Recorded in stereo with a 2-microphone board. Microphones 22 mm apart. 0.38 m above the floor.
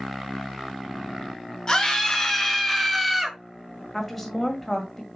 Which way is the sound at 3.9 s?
10° left (ahead or behind).